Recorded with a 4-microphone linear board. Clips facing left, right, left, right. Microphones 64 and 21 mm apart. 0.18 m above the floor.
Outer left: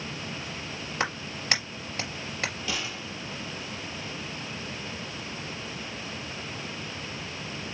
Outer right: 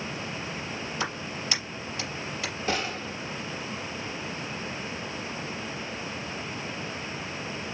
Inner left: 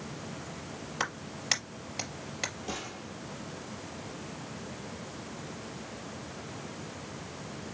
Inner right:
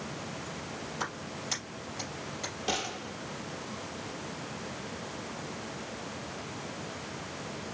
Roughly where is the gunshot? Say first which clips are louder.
Outer right 4 dB, inner right 5 dB; right.